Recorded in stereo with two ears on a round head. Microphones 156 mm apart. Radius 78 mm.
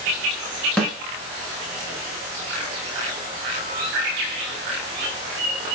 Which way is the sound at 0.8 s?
5° left (ahead or behind).